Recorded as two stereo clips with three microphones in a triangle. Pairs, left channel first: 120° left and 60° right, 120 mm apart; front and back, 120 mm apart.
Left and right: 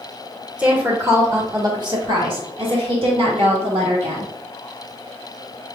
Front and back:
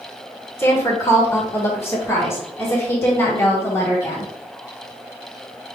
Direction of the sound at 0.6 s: Straight ahead.